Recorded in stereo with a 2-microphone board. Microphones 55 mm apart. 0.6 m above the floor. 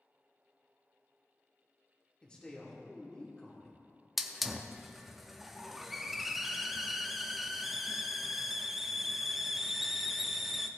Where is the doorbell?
No doorbell in this recording.